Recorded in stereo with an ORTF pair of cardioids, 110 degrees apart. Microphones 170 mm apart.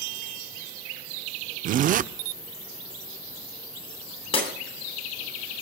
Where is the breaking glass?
35° left, 8 m.